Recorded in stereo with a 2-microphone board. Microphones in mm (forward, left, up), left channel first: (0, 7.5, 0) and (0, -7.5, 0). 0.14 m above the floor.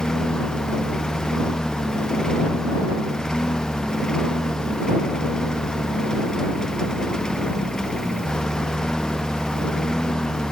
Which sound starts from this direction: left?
A lawn mower, at 0.0 s.